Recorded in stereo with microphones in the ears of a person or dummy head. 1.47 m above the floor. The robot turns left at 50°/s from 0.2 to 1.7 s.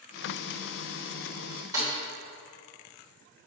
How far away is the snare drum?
About 3 m.